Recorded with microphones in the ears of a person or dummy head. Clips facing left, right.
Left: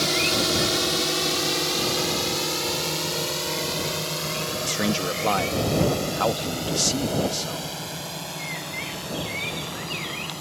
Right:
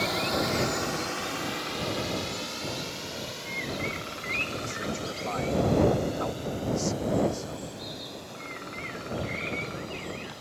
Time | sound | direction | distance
0.0 | a drone | 35° left (ahead or behind) | ?
4.6 | a man speaking | 85° left | ?